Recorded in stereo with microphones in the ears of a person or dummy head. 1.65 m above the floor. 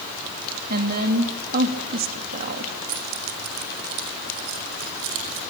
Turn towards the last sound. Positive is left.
turn(degrees=-80)